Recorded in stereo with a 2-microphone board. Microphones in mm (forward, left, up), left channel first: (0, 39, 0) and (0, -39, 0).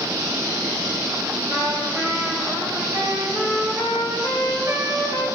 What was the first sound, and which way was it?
A trumpet, 50° right (ahead or behind).